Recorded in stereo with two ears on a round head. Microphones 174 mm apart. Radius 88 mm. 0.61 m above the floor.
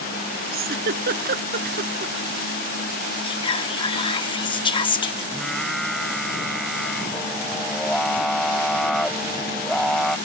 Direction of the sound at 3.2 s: 25° left (ahead or behind).